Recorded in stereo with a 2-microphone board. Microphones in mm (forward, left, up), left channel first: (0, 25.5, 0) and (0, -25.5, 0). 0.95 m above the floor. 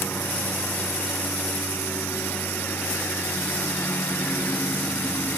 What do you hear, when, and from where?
0.0 s a lawn mower: 45° left (ahead or behind)